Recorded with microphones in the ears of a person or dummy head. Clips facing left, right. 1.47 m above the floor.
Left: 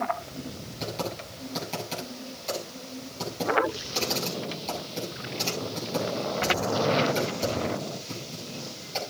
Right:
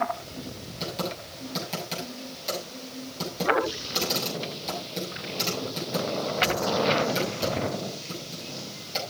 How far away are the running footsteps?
I don't hear running footsteps.